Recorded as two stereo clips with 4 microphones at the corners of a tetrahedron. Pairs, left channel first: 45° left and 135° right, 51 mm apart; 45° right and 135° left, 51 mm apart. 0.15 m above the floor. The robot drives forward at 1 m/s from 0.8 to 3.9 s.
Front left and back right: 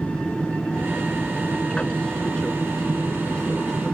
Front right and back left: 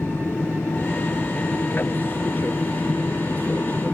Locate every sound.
0.0 s an aircraft: 20° right; by 4.0 s 25° right